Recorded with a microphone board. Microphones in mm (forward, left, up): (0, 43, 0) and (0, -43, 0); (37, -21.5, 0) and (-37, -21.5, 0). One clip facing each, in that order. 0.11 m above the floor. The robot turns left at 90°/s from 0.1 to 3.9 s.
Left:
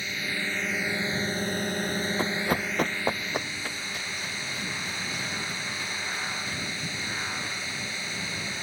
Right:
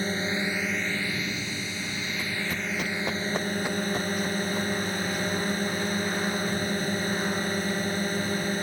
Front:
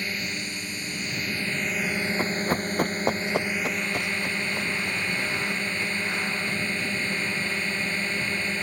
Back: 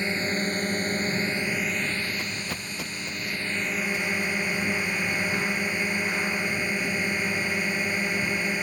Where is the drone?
125° right; by 8.6 s 105° right.